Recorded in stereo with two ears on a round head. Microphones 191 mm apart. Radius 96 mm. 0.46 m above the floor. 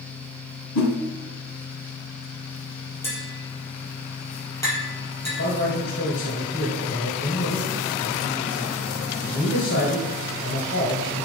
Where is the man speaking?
55° left (ahead or behind), 2 m.